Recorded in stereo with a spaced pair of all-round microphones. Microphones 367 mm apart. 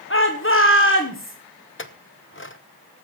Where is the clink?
35° left (ahead or behind), 0.7 m.